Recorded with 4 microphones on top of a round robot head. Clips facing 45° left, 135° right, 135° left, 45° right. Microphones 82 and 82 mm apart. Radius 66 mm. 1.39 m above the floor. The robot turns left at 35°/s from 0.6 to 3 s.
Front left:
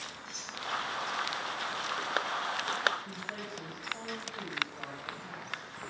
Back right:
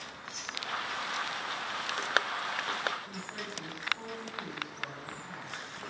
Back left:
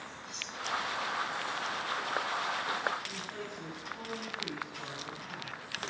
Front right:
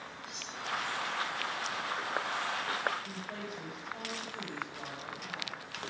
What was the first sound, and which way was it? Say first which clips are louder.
Cutlery clinking: back right 2 dB, even; 85° left.